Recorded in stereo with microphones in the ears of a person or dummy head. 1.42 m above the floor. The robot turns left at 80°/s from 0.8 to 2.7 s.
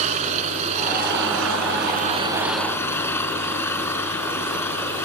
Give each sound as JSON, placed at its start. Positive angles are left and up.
{"t": 0.0, "sound": "an engine running", "azimuth_deg": -40}